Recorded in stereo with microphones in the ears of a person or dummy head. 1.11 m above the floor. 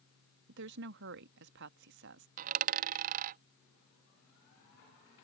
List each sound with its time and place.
0.5 s a woman speaking: 60° right (ahead or behind)
2.4 s a dropped coin: 40° right (ahead or behind)